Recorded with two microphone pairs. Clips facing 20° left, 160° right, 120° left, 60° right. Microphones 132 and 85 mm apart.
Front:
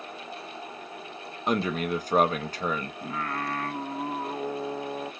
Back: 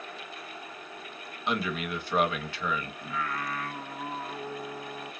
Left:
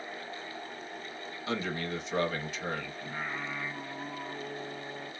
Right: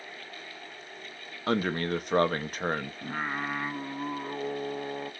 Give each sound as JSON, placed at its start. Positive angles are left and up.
{"t": 1.5, "sound": "a man speaking", "azimuth_deg": -25, "distance_m": 0.9}
{"t": 3.0, "sound": "singing", "azimuth_deg": -25, "distance_m": 0.6}